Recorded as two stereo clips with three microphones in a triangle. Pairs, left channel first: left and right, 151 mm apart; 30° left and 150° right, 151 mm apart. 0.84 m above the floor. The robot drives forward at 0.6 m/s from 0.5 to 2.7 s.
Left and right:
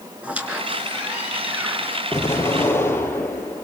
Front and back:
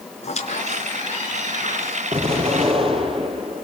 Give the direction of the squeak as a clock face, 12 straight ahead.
12 o'clock.